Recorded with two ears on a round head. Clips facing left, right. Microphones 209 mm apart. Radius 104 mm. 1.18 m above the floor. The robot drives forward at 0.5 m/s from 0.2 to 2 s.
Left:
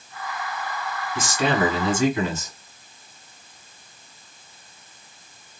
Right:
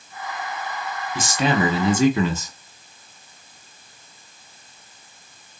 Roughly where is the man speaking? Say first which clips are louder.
Right 1 dB; right.